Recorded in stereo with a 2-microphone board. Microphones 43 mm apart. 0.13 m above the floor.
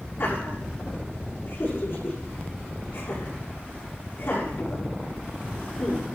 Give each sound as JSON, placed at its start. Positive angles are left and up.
{"t": 0.2, "sound": "laughter", "side_deg": 60, "distance_m": 8.0}